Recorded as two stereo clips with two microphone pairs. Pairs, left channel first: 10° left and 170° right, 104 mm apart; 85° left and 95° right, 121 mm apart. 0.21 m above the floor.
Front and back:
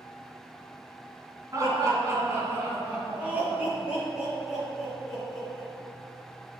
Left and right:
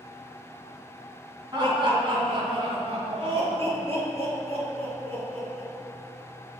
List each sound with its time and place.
1.5 s laughter: 125° right, 2 m; by 5.7 s 75° right, 3.5 m